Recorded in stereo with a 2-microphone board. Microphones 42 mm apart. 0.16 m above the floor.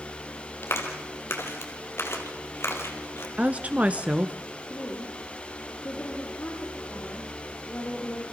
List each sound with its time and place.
0.6 s a clap: 70° left (ahead or behind), 3 m
3.4 s a woman speaking: 35° right (ahead or behind), 1.7 m
4.7 s a woman speaking: 45° left (ahead or behind), 8.5 m